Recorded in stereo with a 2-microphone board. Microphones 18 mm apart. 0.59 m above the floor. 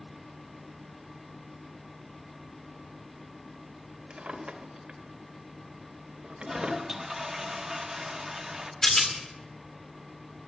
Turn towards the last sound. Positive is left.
turn(degrees=35)  # may be behind; listen again after turning